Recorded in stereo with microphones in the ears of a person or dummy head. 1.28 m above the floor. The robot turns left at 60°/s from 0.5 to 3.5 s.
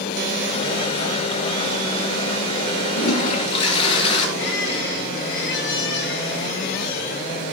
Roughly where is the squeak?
Left.